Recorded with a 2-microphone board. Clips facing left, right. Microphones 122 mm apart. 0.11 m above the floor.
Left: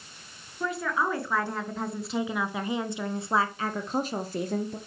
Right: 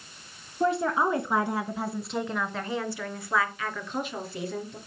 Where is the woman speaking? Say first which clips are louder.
Right 4 dB; 30° right (ahead or behind), 1.4 m; by 4.8 s 45° left (ahead or behind), 1.9 m.